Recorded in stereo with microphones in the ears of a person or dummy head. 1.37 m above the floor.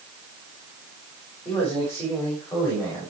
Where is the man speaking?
15° left (ahead or behind), 6 m.